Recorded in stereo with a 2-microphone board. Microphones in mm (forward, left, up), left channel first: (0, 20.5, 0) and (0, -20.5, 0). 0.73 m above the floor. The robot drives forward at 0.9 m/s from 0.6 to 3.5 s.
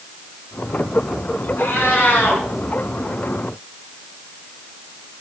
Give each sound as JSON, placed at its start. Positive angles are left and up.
{"t": 1.6, "sound": "a cat meowing", "side_deg": 65, "distance_m": 4.0}